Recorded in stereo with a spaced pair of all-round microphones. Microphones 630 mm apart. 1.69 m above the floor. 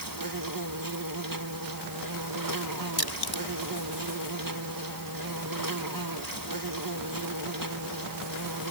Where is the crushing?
35° left (ahead or behind).